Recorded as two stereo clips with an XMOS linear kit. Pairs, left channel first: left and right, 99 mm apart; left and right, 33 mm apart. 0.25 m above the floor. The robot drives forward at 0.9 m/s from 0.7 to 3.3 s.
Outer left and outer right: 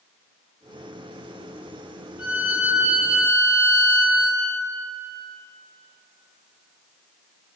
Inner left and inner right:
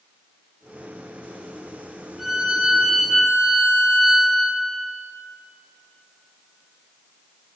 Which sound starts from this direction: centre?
A violin, at 2.2 s.